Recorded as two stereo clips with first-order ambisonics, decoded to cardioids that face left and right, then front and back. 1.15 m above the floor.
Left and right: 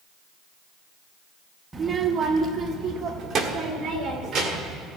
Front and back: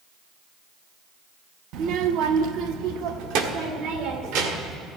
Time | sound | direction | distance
1.7 | a child speaking | 160° right | 0.6 m